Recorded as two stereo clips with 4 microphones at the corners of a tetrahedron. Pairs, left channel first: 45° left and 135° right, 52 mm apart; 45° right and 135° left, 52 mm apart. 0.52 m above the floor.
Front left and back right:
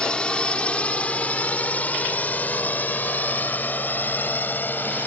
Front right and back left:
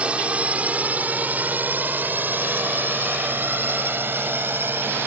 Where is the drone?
95° left.